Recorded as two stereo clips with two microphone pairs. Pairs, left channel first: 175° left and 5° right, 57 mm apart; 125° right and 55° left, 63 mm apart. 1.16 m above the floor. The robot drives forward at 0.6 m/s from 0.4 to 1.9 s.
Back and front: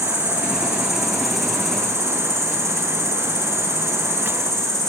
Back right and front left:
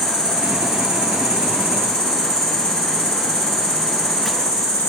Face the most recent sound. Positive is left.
turn(degrees=95)